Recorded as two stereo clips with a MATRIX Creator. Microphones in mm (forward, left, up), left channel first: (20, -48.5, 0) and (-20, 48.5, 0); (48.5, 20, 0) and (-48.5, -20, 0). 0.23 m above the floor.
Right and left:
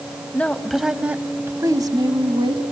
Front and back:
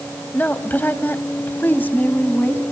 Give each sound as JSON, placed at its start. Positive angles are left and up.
{"t": 0.3, "sound": "a woman speaking", "azimuth_deg": -20, "distance_m": 0.9}